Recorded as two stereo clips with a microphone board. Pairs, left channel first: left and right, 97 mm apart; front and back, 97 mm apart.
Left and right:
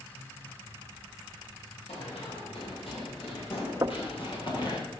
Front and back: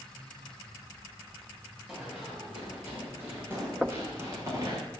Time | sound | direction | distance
1.9 | running footsteps | 100° left | 8 m
3.8 | knocking | 110° right | 0.6 m